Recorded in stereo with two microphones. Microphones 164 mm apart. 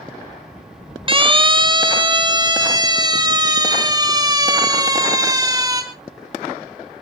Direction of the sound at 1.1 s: 35° right (ahead or behind).